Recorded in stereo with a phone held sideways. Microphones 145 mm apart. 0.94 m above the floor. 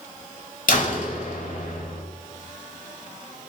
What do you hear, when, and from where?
0.7 s a door slam: 75° left (ahead or behind), 4 m